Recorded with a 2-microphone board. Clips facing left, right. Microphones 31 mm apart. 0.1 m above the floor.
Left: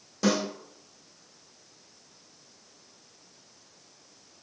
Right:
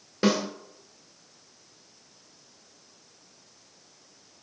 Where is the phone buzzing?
I don't hear a phone buzzing.